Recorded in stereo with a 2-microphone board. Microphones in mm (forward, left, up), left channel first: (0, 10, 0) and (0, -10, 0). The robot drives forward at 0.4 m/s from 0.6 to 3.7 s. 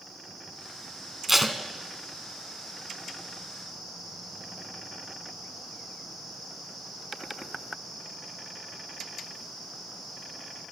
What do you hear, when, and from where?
1.3 s tape being pulled: 20° right (ahead or behind), 1.0 m